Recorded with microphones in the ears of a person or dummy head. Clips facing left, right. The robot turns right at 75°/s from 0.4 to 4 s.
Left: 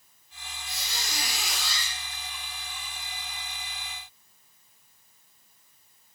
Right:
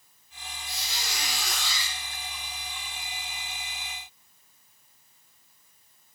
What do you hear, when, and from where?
0.7 s a squeak: 105° left, 4 m; by 1.9 s 160° right, 4 m